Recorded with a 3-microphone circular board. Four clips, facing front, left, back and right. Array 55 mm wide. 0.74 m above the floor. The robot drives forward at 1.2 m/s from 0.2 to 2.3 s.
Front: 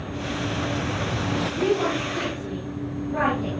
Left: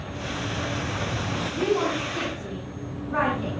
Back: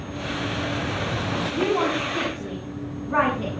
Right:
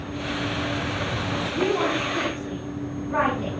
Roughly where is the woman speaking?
Behind right.